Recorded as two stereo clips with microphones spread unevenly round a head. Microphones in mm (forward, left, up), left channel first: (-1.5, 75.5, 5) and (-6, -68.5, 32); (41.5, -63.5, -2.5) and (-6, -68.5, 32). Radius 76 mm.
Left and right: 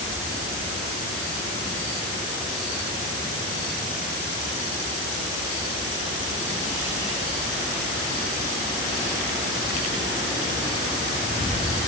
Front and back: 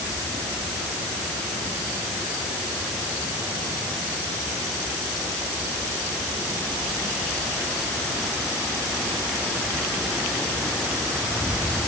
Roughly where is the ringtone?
No ringtone in this recording.